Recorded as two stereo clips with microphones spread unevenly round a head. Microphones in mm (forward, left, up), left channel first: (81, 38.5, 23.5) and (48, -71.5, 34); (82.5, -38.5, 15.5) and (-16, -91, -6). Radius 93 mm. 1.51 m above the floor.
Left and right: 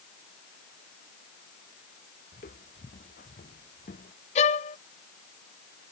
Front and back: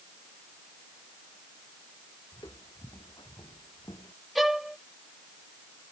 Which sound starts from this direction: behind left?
A violin, at 4.3 s.